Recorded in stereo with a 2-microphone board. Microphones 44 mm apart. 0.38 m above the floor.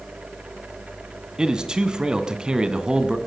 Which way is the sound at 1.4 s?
20° right (ahead or behind).